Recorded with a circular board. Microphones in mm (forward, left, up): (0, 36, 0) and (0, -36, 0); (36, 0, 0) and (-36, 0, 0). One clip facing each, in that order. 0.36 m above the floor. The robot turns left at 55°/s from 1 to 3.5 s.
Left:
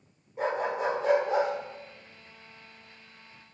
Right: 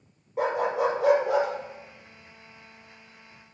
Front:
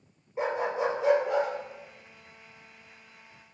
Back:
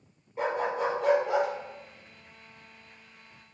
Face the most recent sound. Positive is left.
turn(degrees=145)